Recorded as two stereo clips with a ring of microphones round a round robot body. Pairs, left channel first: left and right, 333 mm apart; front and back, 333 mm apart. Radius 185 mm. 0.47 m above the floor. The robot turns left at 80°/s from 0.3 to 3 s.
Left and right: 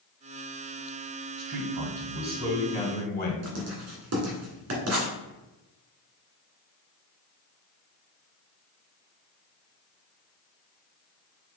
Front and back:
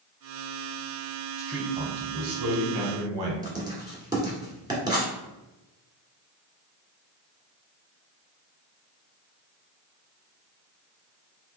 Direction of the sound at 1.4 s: 80° right.